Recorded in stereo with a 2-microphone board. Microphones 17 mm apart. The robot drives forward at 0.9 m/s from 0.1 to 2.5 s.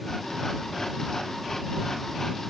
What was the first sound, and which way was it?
Only background noise.